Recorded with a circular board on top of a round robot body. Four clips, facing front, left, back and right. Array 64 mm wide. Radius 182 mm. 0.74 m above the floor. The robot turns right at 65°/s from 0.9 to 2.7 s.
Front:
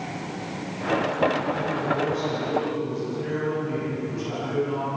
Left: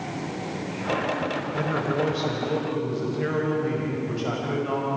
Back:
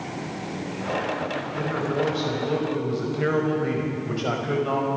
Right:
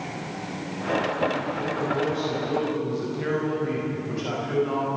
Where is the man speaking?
95° left, 5.5 m; by 4.9 s 170° left, 5.5 m.